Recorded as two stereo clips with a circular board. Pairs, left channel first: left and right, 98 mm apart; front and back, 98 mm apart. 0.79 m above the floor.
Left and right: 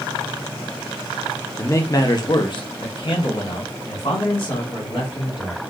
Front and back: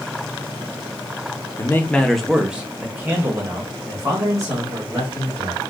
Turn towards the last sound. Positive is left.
turn(degrees=125)